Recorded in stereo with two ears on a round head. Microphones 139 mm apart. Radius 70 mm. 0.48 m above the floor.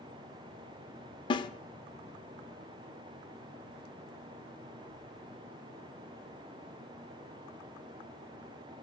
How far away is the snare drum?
About 0.7 m.